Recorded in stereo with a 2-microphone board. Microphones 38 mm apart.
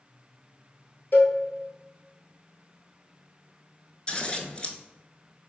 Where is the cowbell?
55° left (ahead or behind), 1.4 m.